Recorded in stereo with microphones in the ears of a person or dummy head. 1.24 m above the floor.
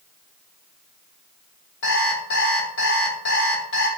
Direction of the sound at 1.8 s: 65° left (ahead or behind).